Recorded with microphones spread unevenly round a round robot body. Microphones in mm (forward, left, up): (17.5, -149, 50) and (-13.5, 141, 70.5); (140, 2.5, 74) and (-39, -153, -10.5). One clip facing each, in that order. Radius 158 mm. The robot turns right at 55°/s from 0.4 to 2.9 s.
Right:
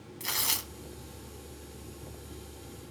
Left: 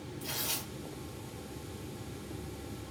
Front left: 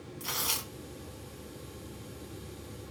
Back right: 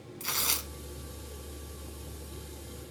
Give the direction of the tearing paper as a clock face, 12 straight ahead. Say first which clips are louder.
Left 2 dB, even; 3 o'clock.